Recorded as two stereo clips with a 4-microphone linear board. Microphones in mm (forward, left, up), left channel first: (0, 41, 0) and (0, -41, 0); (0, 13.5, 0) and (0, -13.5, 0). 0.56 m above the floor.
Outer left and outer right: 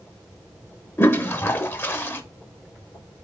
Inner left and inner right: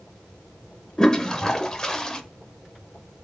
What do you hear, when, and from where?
1.0 s a toilet flushing: 30° left (ahead or behind), 0.5 m